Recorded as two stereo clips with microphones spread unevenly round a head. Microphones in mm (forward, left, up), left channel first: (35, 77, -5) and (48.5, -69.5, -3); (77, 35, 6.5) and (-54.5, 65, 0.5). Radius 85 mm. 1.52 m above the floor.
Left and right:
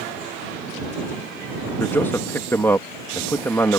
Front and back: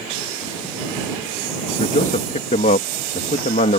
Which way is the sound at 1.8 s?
20° left.